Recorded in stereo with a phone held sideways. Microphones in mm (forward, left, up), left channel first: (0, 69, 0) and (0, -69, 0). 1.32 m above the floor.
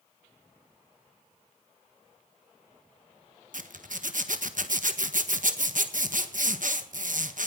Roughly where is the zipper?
Right.